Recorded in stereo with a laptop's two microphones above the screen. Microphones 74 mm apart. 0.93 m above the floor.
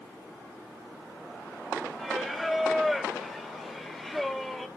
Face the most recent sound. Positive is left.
turn(degrees=0)  # may be behind; listen again after turning